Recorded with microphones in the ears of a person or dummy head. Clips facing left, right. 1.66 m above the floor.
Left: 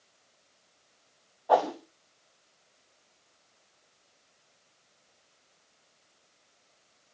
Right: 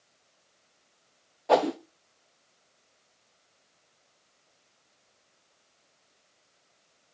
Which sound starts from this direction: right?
A whoosh, at 1.5 s.